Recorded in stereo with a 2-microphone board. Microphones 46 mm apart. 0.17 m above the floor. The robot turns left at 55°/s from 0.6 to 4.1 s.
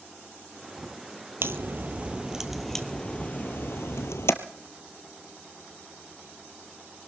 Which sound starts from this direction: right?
A crack, at 1.4 s.